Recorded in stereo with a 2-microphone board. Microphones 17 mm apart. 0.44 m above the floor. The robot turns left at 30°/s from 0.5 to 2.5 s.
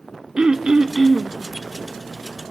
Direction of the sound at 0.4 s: 50° right (ahead or behind).